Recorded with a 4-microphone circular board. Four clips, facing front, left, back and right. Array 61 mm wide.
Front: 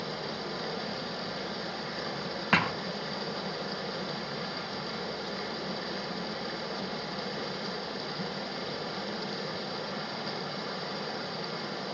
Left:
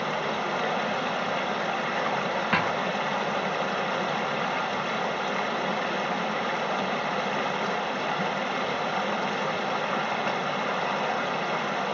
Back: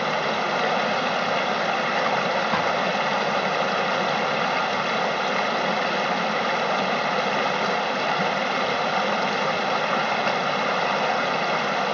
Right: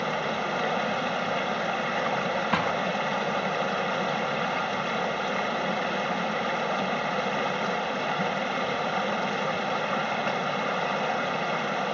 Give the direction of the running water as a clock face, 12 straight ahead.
6 o'clock.